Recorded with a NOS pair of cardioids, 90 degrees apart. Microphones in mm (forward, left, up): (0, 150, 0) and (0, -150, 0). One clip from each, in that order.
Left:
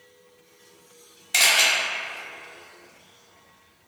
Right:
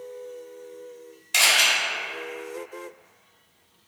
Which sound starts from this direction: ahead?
A camera shutter, at 1.3 s.